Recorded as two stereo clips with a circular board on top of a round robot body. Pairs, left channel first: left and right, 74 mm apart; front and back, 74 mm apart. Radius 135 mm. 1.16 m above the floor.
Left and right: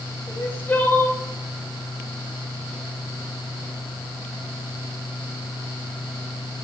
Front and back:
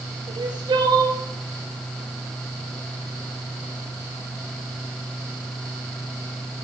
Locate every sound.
0.3 s crying: 155° left, 1.3 m